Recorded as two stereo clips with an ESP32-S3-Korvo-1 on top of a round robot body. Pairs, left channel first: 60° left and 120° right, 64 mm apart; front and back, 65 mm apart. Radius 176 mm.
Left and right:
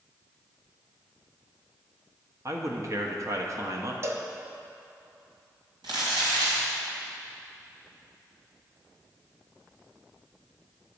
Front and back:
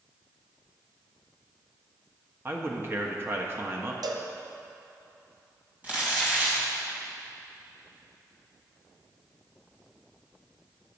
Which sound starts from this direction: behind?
A cowbell, at 4.0 s.